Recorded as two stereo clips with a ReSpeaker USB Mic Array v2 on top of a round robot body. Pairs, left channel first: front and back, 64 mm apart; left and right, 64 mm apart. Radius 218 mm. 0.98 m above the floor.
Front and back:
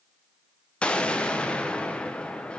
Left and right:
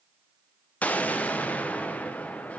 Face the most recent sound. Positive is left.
turn(degrees=55)